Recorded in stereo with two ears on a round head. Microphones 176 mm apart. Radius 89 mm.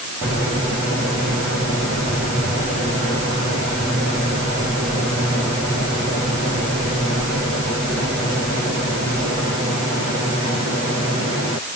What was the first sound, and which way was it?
Only background noise.